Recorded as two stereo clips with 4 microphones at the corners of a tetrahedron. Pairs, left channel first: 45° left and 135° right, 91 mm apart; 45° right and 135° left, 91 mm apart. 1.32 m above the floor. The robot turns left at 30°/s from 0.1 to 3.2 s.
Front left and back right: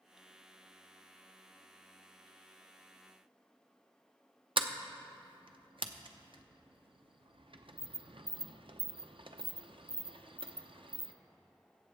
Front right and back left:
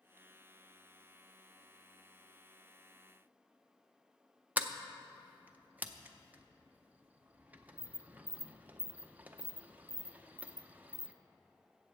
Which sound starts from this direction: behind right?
A sliding door, at 4.6 s.